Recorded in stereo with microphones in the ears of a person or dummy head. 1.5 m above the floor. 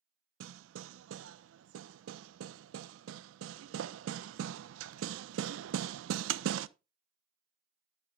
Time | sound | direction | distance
0.4 | hammering | 90° right | 0.7 m